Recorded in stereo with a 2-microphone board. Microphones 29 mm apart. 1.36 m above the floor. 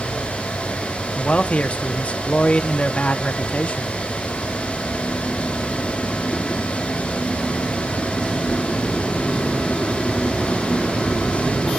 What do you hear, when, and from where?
1.1 s a man speaking: 50° left (ahead or behind), 0.9 m